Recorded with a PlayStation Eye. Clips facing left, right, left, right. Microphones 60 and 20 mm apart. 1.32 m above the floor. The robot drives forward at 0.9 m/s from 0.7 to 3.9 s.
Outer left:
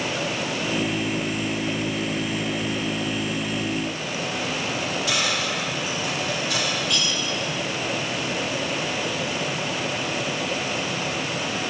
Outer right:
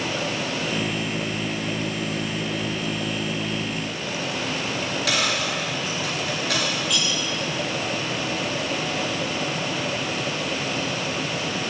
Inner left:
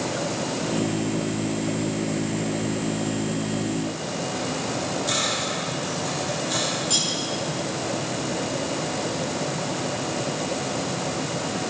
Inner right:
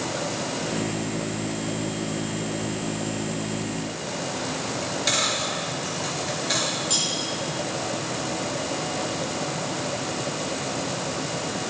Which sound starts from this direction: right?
A dropped coin, at 4.8 s.